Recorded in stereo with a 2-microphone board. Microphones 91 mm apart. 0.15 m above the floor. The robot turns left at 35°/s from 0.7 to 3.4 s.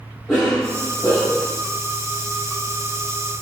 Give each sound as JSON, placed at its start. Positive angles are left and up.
{"t": 0.3, "sound": "a cough", "azimuth_deg": 175, "distance_m": 4.5}